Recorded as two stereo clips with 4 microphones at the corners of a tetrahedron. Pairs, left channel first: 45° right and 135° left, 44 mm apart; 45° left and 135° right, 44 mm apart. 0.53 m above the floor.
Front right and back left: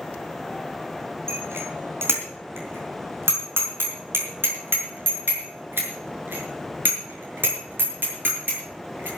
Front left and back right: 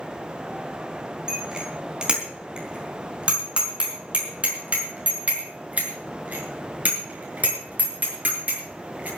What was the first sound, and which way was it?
A bicycle bell, 155° left.